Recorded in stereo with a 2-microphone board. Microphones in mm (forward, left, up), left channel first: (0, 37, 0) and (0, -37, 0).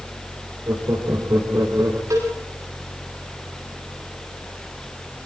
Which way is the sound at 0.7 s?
45° right (ahead or behind).